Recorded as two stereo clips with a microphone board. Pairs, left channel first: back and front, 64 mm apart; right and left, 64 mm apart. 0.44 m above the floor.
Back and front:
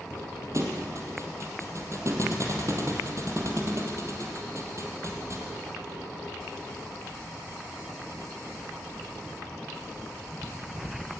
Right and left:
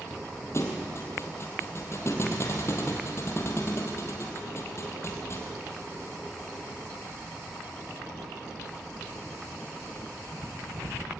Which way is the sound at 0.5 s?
45° right.